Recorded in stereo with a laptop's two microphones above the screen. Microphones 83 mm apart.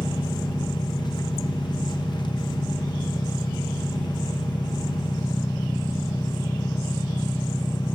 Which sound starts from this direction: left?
An engine running, at 0.0 s.